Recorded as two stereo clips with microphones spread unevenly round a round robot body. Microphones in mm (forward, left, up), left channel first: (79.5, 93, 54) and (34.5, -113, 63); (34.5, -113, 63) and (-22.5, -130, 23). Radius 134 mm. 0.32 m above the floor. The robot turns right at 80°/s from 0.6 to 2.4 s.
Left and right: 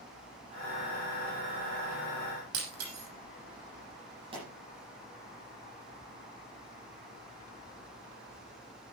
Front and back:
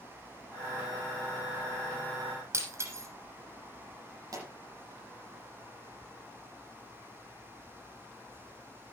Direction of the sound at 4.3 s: 175° right.